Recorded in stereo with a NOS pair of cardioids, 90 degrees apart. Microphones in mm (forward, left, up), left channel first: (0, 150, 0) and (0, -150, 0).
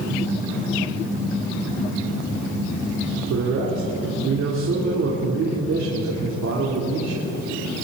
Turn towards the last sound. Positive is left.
turn(degrees=-60)